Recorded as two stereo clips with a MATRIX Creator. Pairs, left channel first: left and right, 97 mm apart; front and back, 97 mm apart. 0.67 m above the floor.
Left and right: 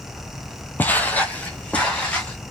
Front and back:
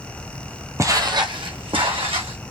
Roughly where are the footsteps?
Behind left.